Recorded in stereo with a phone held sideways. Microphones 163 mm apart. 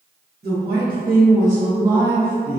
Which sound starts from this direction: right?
A woman speaking, at 0.4 s.